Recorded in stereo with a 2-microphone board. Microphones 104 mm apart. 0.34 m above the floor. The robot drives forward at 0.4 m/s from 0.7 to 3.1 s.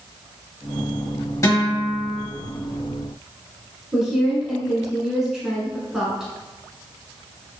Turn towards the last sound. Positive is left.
turn(degrees=-5)  # may be behind; listen again after turning